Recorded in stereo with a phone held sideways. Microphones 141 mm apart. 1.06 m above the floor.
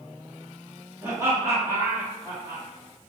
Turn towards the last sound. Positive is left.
turn(degrees=-30)  # may be behind; listen again after turning